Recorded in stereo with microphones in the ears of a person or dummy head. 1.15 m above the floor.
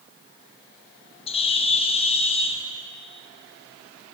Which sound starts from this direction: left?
A bird, at 1.3 s.